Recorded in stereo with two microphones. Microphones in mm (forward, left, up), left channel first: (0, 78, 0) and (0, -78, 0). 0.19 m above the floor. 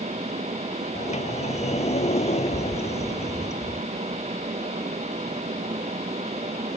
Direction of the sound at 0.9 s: 50° left (ahead or behind).